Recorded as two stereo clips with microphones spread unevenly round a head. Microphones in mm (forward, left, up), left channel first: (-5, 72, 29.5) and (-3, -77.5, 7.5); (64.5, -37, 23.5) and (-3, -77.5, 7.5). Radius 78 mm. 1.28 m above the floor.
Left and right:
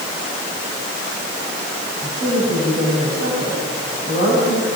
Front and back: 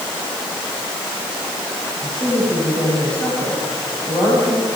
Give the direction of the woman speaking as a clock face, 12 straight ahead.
2 o'clock.